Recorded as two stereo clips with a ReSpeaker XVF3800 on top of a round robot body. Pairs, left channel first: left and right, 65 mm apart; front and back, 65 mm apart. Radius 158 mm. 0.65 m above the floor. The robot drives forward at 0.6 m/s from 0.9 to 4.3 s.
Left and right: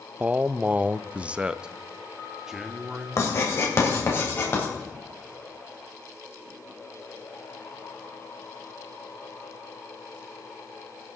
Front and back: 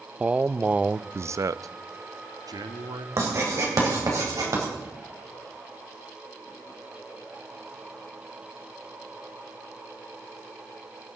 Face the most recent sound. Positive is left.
turn(degrees=145)